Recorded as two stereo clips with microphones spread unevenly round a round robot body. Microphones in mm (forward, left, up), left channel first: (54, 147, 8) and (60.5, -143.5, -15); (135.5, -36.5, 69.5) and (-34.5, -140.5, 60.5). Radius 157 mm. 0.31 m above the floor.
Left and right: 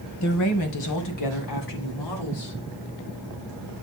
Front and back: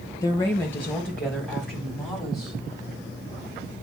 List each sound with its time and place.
0.2 s a woman speaking: 105° left, 1.3 m; by 2.5 s 125° left, 2.5 m